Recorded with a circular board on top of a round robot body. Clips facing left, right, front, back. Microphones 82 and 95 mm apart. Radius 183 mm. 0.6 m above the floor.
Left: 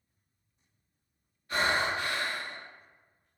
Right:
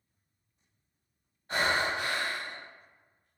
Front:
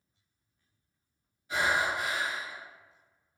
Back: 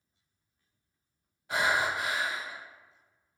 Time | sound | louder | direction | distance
1.5 | breathing | even, back 1 dB | 150° right | 1.0 m